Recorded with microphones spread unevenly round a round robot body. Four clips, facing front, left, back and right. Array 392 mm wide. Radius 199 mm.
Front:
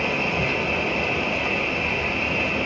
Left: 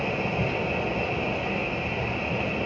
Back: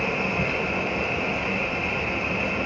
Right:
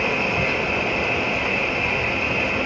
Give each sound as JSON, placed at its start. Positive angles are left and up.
{"t": 0.0, "sound": "an insect", "azimuth_deg": -85, "distance_m": 1.9}